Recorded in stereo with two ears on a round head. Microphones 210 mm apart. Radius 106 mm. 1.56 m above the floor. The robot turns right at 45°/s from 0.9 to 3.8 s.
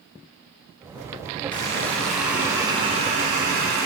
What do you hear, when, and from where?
1.5 s a running tap: 150° left, 0.9 m; by 3.9 s 105° right, 0.9 m